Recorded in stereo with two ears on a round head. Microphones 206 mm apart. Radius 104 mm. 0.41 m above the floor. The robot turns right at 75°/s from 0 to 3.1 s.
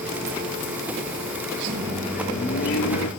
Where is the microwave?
30° right, 4 m; by 3.1 s 75° left, 4 m.